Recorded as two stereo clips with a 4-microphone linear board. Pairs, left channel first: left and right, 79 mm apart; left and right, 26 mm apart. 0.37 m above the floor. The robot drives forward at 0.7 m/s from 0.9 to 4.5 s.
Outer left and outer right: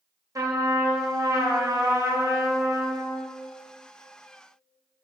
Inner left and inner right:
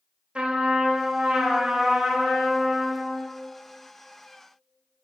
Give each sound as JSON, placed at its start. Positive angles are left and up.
{"t": 0.3, "sound": "a trumpet", "side_deg": -45, "distance_m": 1.2}